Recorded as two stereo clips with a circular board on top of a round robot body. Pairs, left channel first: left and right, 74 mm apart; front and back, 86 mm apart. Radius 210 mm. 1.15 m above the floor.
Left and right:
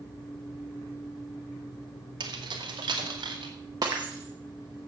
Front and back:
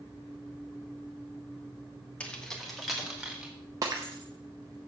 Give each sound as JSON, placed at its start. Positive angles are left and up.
{"t": 2.2, "sound": "keys jangling", "azimuth_deg": -75, "distance_m": 1.2}
{"t": 3.8, "sound": "breaking glass", "azimuth_deg": -130, "distance_m": 0.5}